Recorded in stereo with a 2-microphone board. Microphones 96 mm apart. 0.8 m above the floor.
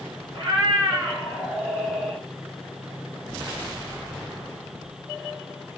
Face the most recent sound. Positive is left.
turn(degrees=0)  # may be behind; listen again after turning